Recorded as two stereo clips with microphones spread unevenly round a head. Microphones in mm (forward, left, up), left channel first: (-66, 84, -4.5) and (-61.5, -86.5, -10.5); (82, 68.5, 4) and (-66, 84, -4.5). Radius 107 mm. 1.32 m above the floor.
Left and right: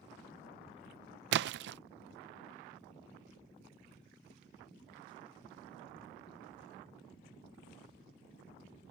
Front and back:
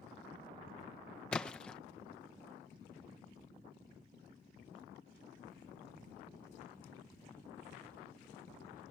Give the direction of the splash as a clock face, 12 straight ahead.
3 o'clock.